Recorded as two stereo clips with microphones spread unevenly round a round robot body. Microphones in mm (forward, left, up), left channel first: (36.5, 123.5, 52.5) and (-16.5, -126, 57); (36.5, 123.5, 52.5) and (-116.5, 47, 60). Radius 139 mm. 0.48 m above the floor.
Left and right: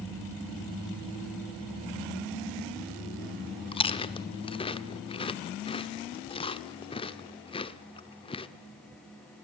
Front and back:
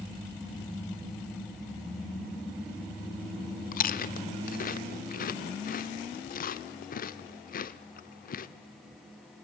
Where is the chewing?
15° left, 0.9 m.